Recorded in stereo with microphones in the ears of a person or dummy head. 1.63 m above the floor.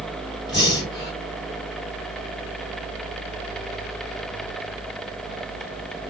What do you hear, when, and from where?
0.5 s breathing: 30° left (ahead or behind), 5.5 m